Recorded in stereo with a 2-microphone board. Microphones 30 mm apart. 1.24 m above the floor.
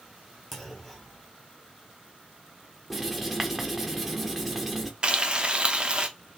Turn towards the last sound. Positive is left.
turn(degrees=-30)  # may be behind; listen again after turning